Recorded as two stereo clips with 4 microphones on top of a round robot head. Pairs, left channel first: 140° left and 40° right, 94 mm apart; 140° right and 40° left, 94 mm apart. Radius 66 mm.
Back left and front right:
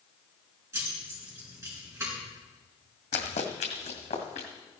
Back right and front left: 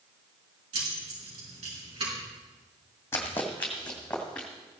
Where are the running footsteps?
155° left, 1.4 m; by 4.5 s 135° left, 3 m.